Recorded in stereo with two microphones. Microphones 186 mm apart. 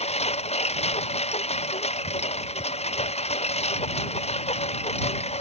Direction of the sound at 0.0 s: 35° left (ahead or behind).